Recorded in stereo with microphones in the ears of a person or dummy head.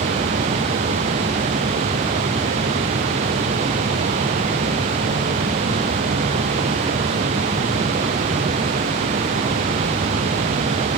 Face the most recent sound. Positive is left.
No sound to turn to.